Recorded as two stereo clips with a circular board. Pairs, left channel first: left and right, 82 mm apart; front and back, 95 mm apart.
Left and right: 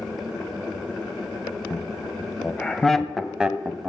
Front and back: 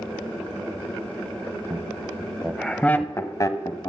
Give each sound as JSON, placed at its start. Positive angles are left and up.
{"t": 1.7, "sound": "laughter", "azimuth_deg": 135, "distance_m": 1.1}